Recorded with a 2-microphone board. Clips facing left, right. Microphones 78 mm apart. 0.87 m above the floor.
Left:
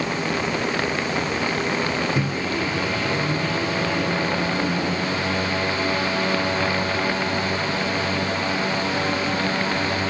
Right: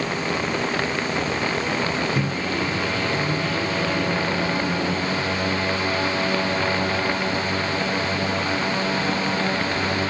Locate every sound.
2.1 s a microwave: 5° left (ahead or behind)